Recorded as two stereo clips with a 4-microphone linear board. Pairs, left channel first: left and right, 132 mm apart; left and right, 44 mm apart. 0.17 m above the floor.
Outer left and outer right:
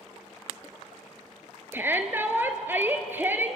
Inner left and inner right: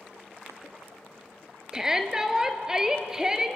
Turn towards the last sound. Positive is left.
turn(degrees=-15)  # may be behind; listen again after turning